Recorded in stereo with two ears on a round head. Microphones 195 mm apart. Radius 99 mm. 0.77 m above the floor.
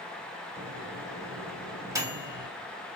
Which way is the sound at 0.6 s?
15° right (ahead or behind).